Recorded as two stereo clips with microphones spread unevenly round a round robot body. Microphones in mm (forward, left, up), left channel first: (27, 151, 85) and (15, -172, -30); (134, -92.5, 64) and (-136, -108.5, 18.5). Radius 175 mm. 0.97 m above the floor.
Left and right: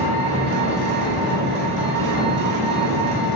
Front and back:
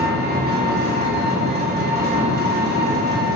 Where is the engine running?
120° right, 1.1 m.